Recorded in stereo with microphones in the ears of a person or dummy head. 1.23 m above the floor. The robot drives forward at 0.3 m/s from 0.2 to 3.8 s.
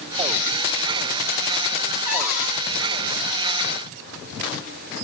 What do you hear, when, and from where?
2.0 s a cupboard door: 5° right (ahead or behind), 2.5 m